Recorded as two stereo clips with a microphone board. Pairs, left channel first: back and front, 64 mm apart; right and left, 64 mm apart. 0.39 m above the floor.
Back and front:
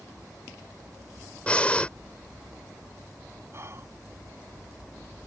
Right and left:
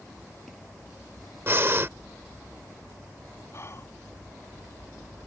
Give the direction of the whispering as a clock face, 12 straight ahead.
2 o'clock.